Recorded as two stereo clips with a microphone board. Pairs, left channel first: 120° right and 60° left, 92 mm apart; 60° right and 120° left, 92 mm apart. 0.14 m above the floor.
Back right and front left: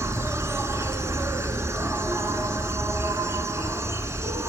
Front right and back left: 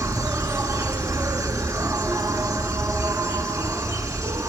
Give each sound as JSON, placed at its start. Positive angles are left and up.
{"t": 0.0, "sound": "an insect", "azimuth_deg": 95, "distance_m": 0.9}